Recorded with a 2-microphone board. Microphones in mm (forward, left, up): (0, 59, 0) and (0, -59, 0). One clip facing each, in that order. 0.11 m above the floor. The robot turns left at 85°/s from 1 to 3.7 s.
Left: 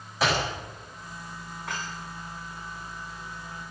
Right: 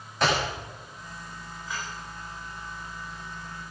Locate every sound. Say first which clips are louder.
0.2 s a clap: right 1 dB; centre (ahead or behind), 9.5 m
1.7 s dishes clattering: left 1 dB; 75° left (ahead or behind), 7 m; by 1.9 s 55° left (ahead or behind), 7 m